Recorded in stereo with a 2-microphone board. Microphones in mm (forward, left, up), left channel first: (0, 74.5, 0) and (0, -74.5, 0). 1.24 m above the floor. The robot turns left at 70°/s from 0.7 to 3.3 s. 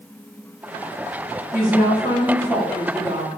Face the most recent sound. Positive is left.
turn(degrees=-50)